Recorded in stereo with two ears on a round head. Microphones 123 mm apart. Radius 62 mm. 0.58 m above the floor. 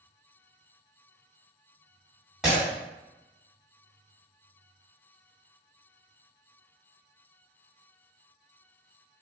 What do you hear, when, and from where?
2.4 s breaking glass: 5° right (ahead or behind), 1.5 m